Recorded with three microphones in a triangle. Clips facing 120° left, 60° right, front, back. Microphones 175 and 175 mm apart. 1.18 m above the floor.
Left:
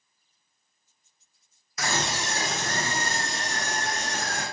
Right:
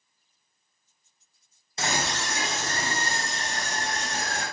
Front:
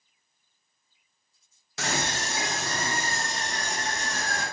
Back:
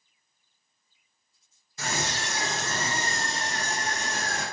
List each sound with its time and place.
1.8 s a scream: 5° left, 0.7 m; by 4.4 s 125° left, 2.5 m